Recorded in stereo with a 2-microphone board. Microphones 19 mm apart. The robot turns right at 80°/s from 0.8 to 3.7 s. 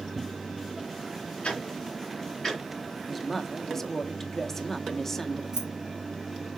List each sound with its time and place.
1.4 s ticking: 80° left, 3 m; by 2.6 s 5° left (ahead or behind), 3 m
3.1 s a woman speaking: 5° left (ahead or behind), 0.9 m; by 5.4 s 20° left (ahead or behind), 0.9 m
5.5 s keys jangling: 35° right (ahead or behind), 2.5 m